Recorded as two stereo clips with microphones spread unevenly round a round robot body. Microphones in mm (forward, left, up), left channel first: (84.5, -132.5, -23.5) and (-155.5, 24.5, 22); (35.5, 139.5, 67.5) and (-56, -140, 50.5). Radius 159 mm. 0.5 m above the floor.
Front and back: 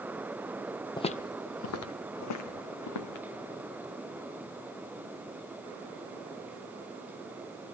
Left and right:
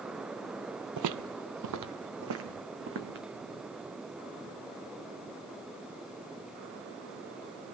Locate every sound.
1.0 s footsteps: 115° right, 0.6 m; by 3.2 s 55° right, 1.9 m